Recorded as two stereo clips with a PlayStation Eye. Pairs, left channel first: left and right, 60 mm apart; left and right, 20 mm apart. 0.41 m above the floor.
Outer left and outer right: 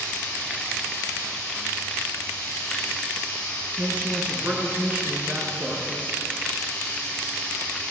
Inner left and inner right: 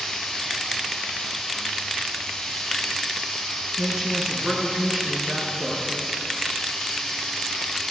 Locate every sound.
0.0 s running water: 15° left (ahead or behind), 6 m
3.8 s a woman speaking: 25° right (ahead or behind), 6 m